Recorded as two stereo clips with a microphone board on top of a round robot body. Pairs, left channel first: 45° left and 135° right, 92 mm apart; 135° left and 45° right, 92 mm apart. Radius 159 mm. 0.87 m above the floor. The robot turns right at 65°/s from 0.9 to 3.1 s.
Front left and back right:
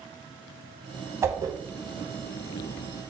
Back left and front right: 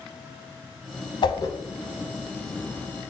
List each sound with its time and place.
1.2 s a whoosh: 165° left, 0.7 m; by 1.6 s 175° right, 0.7 m